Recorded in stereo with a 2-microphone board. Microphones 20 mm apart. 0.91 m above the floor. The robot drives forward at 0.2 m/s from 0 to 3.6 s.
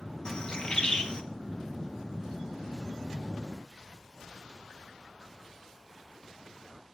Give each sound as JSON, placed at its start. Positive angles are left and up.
{"t": 0.2, "sound": "a bird", "side_deg": 50, "distance_m": 1.2}